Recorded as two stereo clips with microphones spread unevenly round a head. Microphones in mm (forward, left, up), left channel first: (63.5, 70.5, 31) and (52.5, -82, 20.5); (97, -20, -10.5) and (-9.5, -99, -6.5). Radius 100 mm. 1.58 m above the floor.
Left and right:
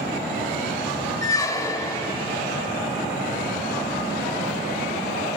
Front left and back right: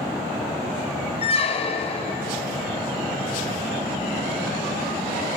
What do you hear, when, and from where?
1.2 s a squeak: 30° left, 0.6 m